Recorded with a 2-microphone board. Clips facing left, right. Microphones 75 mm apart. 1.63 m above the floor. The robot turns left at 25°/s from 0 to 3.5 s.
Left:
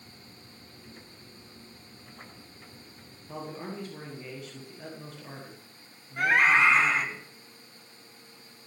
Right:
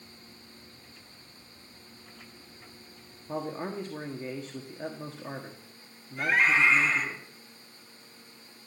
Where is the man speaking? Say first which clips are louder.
Right 4 dB; 25° right (ahead or behind), 1.5 m; by 7.2 s 35° right (ahead or behind), 1.5 m.